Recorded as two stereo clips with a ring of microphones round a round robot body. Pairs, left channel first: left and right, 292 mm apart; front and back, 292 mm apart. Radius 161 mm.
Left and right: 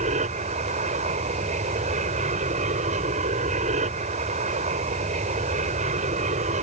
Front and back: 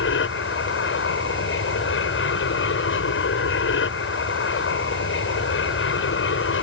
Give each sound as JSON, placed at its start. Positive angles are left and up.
{"t": 0.0, "sound": "an aircraft", "azimuth_deg": -30}